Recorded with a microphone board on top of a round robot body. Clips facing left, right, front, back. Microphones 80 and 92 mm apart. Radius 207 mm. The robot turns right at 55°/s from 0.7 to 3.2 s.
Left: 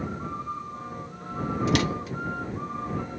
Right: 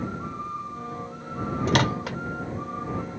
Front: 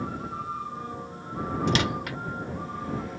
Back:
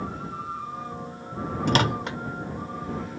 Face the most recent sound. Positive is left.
turn(degrees=-55)